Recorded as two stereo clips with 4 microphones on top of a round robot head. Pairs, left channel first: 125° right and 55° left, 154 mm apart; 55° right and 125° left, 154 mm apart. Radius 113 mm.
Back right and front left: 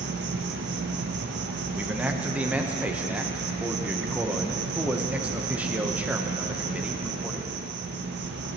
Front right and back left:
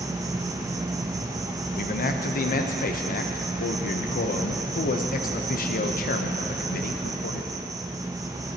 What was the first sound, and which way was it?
An insect, 55° left.